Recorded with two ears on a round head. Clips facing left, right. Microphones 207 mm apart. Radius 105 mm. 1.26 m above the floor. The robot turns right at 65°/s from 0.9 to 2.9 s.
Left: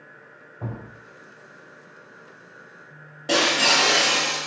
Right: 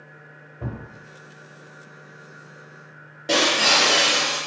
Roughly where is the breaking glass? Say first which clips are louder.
Right 1 dB; centre.